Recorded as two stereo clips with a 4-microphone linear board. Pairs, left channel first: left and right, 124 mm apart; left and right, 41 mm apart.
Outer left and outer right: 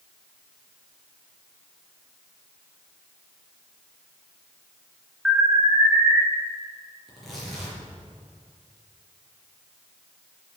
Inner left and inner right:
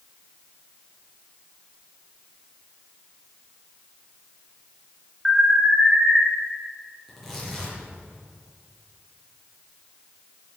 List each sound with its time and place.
5.2 s an alarm: 10° right (ahead or behind), 3.5 m
7.1 s tearing paper: centre (ahead or behind), 5 m